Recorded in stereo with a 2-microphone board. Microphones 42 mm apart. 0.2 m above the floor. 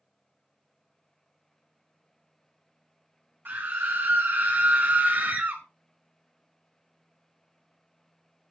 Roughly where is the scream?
Right.